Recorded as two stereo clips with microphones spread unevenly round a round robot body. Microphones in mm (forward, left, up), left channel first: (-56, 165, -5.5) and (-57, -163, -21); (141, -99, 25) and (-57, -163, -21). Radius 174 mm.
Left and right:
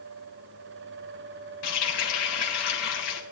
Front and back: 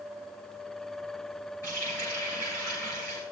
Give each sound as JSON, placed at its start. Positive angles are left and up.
{"t": 1.6, "sound": "a running tap", "azimuth_deg": 105, "distance_m": 2.0}